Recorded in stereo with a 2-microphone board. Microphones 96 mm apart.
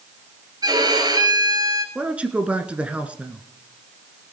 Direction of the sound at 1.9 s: 15° right (ahead or behind).